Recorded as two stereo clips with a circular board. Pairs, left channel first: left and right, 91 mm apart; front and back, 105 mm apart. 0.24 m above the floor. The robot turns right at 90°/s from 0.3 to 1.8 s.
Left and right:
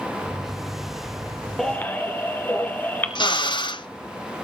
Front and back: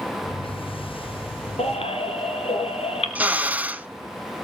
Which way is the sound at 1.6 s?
Straight ahead.